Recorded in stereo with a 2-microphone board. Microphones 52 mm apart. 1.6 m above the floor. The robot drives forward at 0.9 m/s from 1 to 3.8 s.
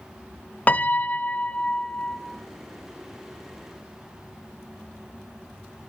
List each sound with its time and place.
0.7 s a piano: 30° left (ahead or behind), 0.7 m; by 2.2 s 15° left (ahead or behind), 1.3 m